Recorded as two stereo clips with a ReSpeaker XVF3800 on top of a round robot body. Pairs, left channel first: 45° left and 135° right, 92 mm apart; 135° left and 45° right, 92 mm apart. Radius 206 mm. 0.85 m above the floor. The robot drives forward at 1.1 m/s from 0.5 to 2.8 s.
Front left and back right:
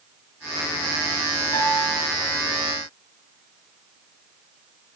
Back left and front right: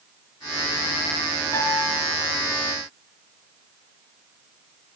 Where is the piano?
85° left, 3 m; by 1.9 s 95° left, 3 m.